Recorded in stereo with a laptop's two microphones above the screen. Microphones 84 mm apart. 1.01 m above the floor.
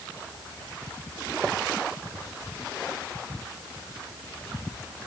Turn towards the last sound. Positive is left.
No sound to turn to.